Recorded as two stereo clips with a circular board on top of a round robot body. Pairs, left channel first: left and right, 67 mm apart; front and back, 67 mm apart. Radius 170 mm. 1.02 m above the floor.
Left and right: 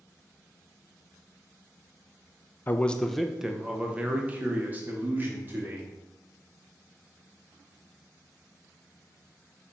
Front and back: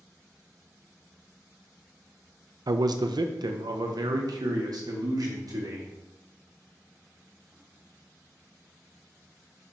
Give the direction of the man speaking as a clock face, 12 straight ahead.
7 o'clock.